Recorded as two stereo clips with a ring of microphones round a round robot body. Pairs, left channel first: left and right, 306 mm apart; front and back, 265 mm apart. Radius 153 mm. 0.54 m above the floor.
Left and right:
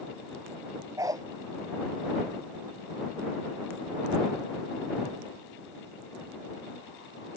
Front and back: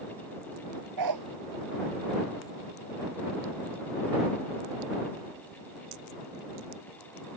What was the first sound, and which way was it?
A dog barking, 170° right.